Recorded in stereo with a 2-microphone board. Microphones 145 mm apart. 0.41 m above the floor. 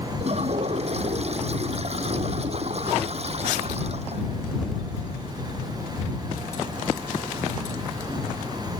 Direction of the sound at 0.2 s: 50° right (ahead or behind).